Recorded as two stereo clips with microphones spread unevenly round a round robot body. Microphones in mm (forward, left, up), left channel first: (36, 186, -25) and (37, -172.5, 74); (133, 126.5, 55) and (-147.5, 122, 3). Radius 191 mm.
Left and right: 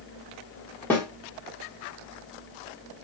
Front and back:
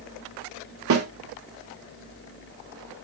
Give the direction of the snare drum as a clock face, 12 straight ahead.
6 o'clock.